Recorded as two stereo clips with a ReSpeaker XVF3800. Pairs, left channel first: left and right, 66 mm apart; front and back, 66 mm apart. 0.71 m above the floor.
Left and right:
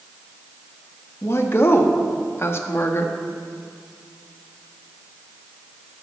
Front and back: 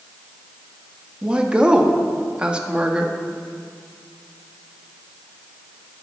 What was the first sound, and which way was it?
A woman speaking, 110° left.